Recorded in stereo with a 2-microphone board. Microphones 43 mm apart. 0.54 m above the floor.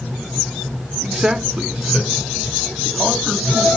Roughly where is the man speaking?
Centre.